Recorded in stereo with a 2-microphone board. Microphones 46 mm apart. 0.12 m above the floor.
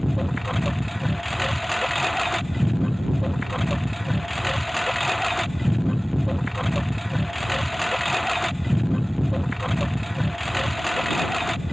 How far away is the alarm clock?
I don't hear an alarm clock.